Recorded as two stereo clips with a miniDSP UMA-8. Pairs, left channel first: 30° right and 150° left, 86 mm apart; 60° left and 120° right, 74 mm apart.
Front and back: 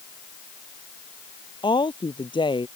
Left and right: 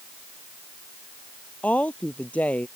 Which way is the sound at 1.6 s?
10° right.